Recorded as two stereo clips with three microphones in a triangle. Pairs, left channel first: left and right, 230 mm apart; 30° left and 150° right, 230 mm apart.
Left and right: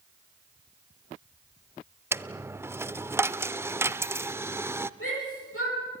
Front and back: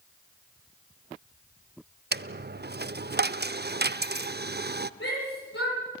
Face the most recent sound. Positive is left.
turn(degrees=60)